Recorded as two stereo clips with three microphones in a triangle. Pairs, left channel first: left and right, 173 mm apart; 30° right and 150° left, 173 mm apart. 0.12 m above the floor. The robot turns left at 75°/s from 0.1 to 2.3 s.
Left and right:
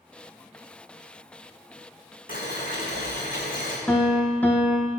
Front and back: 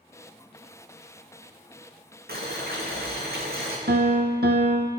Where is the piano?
170° left, 0.9 m.